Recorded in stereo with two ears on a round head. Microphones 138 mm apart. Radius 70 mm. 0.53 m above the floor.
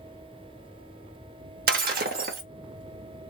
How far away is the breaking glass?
About 0.7 m.